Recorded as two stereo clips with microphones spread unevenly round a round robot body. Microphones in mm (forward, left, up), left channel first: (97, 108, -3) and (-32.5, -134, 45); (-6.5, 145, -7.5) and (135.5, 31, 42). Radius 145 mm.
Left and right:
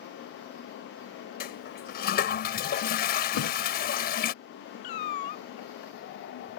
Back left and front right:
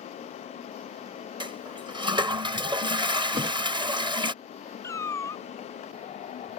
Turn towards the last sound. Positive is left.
turn(degrees=60)